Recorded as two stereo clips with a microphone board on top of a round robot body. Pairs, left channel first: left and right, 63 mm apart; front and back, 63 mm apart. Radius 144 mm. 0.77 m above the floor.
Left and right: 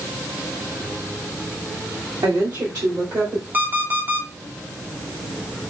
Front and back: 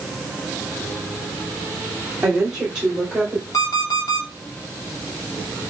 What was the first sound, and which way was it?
A woman speaking, 100° right.